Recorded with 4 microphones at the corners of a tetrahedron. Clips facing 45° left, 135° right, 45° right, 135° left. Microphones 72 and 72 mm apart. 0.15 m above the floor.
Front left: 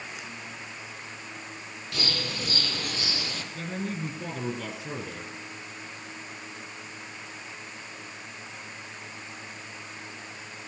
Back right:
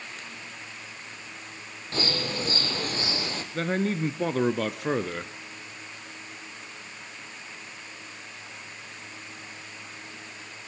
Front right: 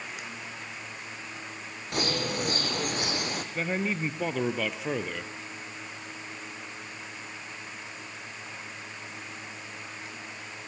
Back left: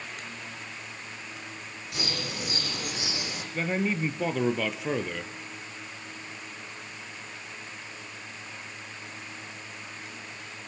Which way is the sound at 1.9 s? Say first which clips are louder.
Back right 4 dB, front right 6 dB; 80° right.